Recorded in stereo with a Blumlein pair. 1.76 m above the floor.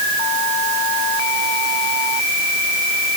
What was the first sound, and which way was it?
Only background noise.